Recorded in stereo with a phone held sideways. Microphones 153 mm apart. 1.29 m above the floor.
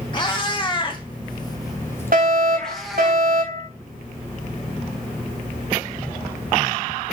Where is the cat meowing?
30° left (ahead or behind), 1.7 m; by 3.1 s centre (ahead or behind), 1.8 m.